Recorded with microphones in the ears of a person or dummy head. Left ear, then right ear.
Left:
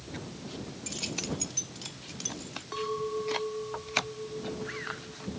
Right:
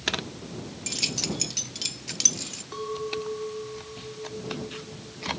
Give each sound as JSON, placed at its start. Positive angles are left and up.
{"t": 0.9, "sound": "keys jangling", "side_deg": -20}
{"t": 2.7, "sound": "a clink", "side_deg": 20}